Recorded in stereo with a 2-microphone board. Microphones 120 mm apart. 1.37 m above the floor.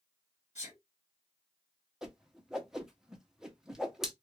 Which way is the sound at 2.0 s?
5° right (ahead or behind).